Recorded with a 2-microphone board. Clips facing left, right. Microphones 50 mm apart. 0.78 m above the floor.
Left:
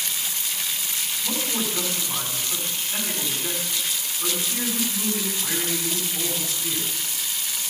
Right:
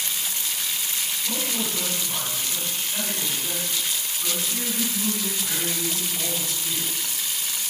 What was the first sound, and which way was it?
A man speaking, 25° left (ahead or behind).